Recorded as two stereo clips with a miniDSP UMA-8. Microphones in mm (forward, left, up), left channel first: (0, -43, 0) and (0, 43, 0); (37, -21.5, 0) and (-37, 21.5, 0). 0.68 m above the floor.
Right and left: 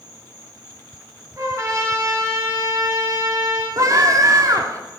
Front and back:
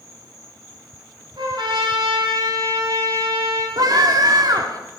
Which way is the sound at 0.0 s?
60° left.